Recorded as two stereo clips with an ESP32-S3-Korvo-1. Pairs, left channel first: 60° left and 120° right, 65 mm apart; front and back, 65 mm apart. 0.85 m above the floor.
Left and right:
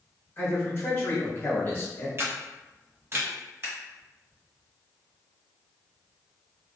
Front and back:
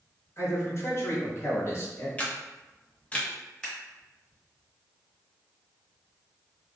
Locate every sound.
0.4 s a man speaking: 25° left, 1.0 m
2.2 s a camera shutter: 70° right, 0.5 m
3.6 s scissors: 75° right, 1.3 m